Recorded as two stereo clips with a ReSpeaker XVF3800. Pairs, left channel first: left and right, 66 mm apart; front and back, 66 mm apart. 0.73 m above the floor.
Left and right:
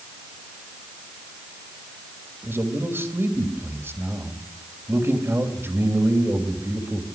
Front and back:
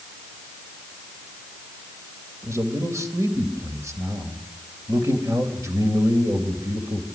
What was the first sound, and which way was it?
A man speaking, 140° right.